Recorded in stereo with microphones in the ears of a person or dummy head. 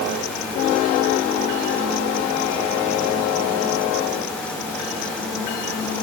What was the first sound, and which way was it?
Only background noise.